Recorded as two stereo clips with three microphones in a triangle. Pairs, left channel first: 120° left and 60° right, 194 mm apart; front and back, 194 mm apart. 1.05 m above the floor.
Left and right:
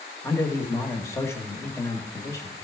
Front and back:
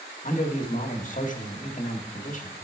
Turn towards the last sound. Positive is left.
turn(degrees=45)